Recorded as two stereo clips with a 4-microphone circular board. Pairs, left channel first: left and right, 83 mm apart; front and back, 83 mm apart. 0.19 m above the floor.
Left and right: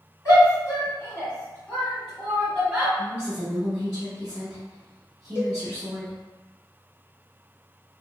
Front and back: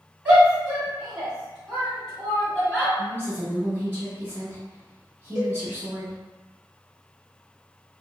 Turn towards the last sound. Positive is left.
turn(degrees=120)